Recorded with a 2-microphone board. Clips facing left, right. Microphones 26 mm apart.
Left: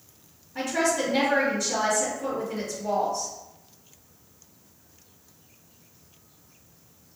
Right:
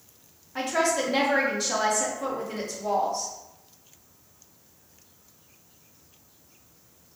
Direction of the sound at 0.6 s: 55° right (ahead or behind).